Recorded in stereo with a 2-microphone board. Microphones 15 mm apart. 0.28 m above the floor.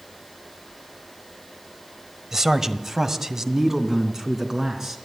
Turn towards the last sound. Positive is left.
turn(degrees=-30)  # may be behind; listen again after turning